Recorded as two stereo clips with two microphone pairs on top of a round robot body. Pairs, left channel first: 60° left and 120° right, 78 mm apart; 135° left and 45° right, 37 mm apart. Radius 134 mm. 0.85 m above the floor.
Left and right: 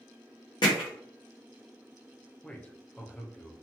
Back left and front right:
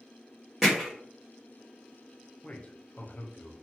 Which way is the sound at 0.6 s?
45° left.